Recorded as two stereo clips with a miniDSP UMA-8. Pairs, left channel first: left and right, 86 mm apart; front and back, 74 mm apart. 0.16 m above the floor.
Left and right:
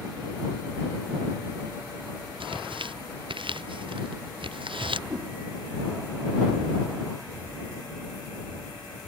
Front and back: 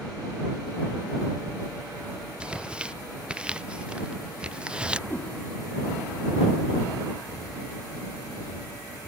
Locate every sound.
2.4 s tearing paper: 105° right
5.1 s a whoosh: 60° right